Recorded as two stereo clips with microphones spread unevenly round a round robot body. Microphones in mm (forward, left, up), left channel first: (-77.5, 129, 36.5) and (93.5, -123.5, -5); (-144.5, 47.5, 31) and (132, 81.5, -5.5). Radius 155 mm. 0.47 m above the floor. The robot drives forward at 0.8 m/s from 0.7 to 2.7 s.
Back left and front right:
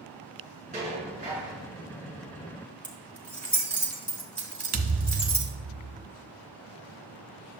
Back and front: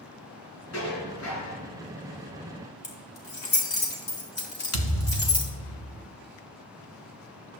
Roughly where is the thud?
Behind right.